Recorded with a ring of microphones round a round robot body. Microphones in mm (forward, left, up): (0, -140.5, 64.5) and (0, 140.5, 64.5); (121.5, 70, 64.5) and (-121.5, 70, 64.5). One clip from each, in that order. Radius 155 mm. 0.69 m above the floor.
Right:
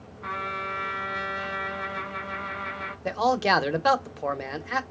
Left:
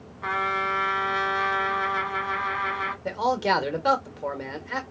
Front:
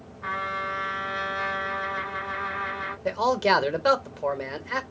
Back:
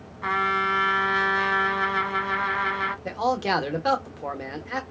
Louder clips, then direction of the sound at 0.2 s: Left 6 dB, back 6 dB; 150° left.